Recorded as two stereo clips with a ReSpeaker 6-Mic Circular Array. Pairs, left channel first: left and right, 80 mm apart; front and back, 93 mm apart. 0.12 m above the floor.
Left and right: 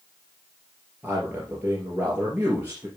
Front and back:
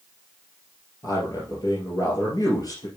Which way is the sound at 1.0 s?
30° right.